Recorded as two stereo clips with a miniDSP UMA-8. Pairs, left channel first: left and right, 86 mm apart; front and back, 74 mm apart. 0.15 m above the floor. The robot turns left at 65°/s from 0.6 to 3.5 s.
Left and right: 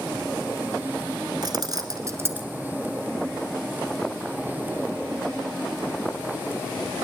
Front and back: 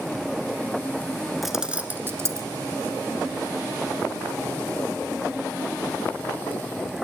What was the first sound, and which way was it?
Keys jangling, 90° right.